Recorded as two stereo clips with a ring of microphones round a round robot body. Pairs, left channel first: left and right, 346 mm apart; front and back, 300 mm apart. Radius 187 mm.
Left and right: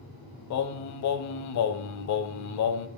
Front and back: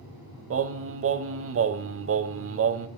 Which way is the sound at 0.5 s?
130° left.